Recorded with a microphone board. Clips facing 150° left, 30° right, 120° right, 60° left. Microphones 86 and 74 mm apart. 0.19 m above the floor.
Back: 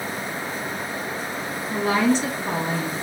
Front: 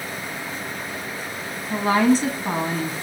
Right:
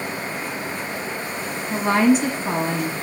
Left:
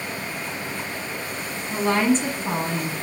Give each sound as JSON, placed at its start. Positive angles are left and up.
{"t": 1.7, "sound": "a woman speaking", "azimuth_deg": -60, "distance_m": 1.2}